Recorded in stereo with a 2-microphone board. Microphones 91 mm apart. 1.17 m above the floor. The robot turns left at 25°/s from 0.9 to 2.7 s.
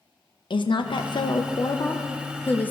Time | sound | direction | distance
0.5 | a woman speaking | 65° left | 0.5 m